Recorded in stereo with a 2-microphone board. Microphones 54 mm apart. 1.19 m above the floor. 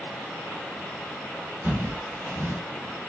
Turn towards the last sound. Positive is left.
turn(degrees=-35)  # may be behind; listen again after turning